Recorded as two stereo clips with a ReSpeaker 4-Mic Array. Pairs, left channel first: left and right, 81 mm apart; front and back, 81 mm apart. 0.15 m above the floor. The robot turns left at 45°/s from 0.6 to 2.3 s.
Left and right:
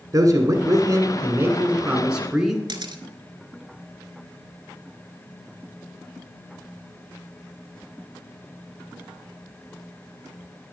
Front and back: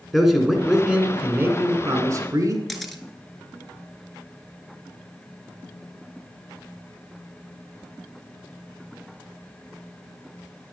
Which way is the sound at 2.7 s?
90° right.